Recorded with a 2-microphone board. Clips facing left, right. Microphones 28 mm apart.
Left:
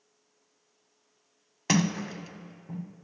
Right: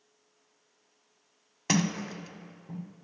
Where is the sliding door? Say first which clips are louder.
Left 2 dB; 10° left (ahead or behind), 0.5 m.